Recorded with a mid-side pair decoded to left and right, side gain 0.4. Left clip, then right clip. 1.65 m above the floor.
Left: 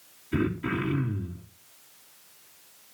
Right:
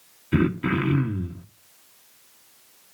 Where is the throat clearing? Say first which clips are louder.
Right 5 dB; 60° right, 1.3 m.